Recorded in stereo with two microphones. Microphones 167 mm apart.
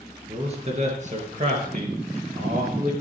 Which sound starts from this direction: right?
A man speaking, at 0.3 s.